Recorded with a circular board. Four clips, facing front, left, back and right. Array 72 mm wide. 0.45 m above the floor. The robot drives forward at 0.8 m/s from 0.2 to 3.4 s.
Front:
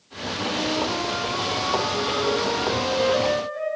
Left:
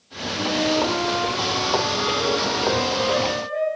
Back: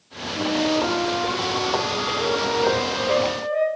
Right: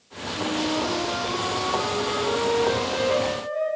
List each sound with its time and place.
0.3 s a flute: 140° left, 4 m; by 3.7 s 155° left, 6 m